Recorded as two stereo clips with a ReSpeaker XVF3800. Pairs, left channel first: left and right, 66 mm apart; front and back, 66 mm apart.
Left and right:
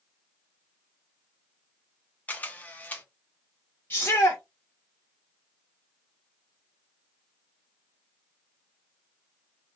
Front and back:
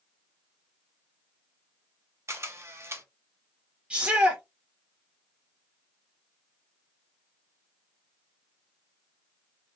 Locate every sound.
2.3 s a camera shutter: 150° left, 0.6 m
3.9 s a shout: 120° left, 0.9 m